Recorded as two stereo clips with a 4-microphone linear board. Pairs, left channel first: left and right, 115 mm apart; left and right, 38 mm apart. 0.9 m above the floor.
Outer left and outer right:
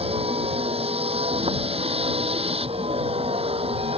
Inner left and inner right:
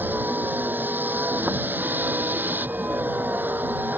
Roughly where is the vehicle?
Right.